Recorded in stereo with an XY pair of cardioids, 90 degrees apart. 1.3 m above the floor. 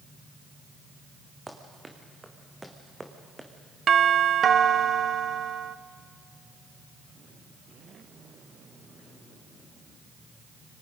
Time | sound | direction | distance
1.5 | running footsteps | 20° right | 4.5 m
3.9 | a doorbell | 55° right | 0.8 m